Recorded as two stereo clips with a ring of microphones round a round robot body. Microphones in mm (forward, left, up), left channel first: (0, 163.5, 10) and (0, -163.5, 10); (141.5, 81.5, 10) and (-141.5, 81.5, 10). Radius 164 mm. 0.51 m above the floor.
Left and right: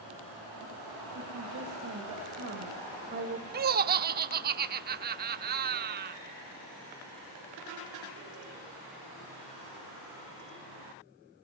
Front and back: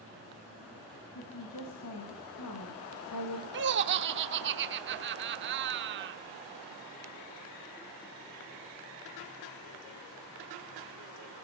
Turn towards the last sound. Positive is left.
turn(degrees=-145)